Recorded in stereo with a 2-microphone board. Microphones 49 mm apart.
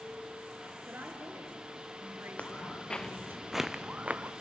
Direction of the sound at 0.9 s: 45° right (ahead or behind).